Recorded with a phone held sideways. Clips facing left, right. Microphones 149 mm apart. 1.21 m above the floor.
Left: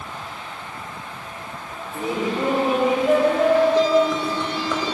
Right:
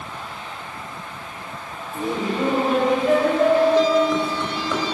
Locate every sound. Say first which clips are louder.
1.9 s laughter: even; 10° left (ahead or behind), 6.5 m; by 4.8 s centre (ahead or behind), 7.5 m